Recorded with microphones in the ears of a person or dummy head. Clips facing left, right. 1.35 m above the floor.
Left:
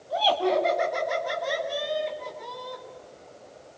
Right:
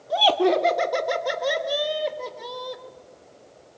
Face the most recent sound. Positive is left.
turn(degrees=-75)  # may be behind; listen again after turning